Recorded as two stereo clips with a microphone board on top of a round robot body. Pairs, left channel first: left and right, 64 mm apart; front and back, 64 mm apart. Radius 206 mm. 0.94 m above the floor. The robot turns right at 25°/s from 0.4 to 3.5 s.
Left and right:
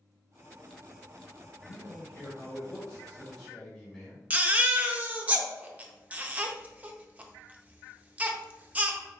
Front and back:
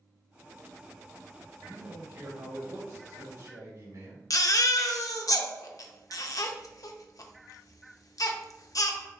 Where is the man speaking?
120° left, 1.6 m; by 4.2 s 165° left, 1.6 m.